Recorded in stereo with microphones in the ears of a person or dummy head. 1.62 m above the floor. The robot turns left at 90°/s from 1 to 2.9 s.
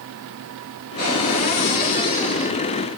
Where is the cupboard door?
120° left, 3 m; by 2.6 s 25° right, 3 m.